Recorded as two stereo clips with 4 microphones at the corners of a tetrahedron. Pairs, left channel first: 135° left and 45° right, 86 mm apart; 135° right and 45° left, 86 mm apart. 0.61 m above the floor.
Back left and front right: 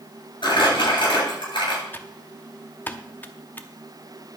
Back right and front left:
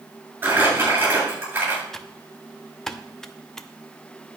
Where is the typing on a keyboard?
150° left, 0.8 m.